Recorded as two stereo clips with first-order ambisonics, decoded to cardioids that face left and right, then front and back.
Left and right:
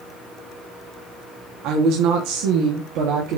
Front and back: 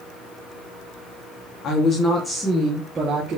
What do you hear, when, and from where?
1.6 s a woman speaking: 55° right, 2 m; by 3.4 s 120° right, 2.5 m